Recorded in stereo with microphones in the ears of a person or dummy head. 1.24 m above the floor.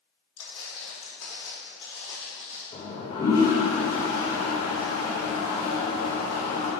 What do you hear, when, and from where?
0.4 s footsteps: 45° left (ahead or behind), 1.8 m; by 2.6 s 15° left (ahead or behind), 2 m
2.7 s a toilet flushing: 25° left (ahead or behind), 1.2 m